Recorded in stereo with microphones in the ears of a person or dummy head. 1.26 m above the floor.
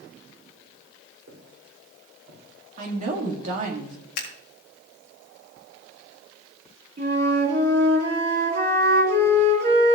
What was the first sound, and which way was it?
Footsteps, 55° right (ahead or behind).